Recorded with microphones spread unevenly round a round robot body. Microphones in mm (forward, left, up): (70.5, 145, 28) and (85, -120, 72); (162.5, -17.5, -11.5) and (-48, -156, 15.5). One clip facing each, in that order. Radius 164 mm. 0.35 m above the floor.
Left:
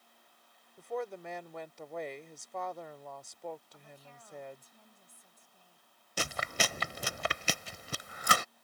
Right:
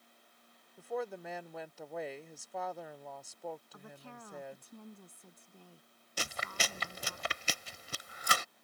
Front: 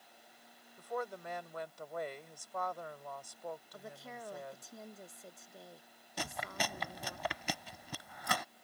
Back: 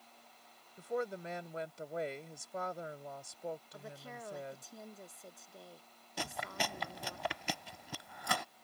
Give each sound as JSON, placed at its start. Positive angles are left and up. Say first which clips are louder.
{"t": 0.8, "sound": "a woman speaking", "louder": "even, back 3 dB", "azimuth_deg": 170}
{"t": 3.7, "sound": "a woman speaking", "louder": "right 5 dB, even", "azimuth_deg": -55}
{"t": 6.2, "sound": "chewing", "louder": "left 5 dB, even", "azimuth_deg": 125}